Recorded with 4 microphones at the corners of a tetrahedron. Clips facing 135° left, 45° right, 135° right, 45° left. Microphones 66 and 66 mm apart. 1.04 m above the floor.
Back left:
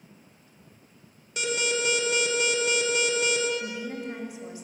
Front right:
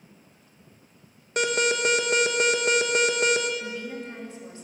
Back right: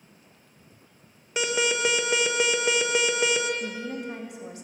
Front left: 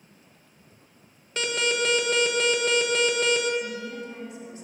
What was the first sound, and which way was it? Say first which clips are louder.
An alarm: front right 4 dB, back right 1 dB; 60° right.